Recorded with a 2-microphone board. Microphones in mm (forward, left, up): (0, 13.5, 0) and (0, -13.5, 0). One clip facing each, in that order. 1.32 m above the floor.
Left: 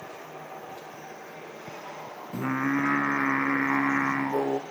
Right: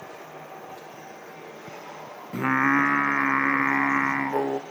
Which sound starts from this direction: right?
Singing, at 2.3 s.